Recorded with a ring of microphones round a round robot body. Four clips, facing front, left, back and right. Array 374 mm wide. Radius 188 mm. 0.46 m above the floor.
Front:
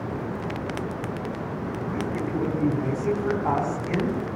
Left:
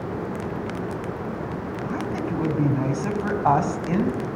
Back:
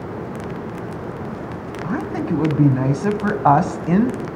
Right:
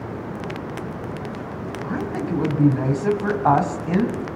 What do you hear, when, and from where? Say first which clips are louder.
1.8 s a woman speaking: right 2 dB, back 7 dB; 175° right, 2.5 m